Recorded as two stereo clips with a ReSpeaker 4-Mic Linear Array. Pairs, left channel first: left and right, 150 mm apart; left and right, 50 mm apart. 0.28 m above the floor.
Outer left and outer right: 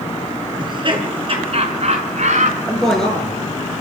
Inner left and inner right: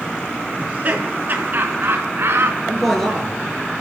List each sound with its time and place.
0.6 s laughter: 35° right (ahead or behind), 4 m; by 2.6 s 55° right (ahead or behind), 4 m
2.7 s a man speaking: 5° left (ahead or behind), 5.5 m